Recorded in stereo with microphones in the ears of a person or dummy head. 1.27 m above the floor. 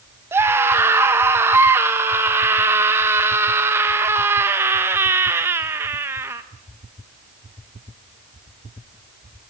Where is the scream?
15° right (ahead or behind), 1.0 m.